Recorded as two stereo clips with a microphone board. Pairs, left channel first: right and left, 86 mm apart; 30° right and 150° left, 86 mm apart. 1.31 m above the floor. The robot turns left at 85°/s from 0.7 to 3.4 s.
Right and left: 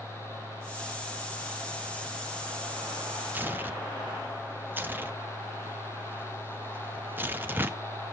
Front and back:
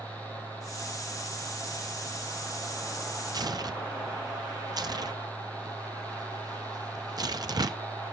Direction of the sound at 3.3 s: 155° left.